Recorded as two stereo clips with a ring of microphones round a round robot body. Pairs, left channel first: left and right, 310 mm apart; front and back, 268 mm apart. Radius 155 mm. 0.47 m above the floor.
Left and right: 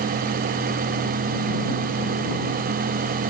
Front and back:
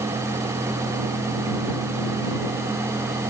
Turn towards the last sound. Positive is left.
No sound to turn to.